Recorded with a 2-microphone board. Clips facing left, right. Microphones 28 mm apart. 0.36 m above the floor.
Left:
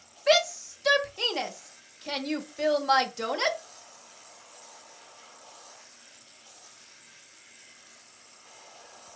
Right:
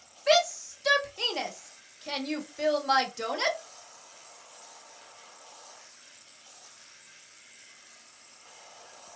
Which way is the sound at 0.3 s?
10° left (ahead or behind).